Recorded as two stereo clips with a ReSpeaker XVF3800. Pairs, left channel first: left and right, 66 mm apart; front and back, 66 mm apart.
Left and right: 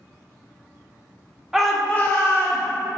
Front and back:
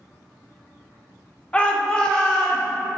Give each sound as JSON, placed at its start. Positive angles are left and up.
{"t": 1.5, "sound": "a shout", "azimuth_deg": -20, "distance_m": 0.7}